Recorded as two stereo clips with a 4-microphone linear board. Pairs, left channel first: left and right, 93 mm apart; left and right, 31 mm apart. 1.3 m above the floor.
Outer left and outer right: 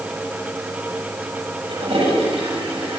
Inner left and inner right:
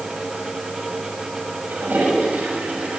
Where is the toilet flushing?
90° right, 6.5 m.